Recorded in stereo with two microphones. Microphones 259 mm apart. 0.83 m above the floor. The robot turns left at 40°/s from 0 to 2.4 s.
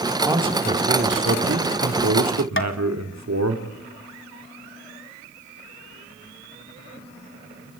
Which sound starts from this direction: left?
Tapping, at 2.6 s.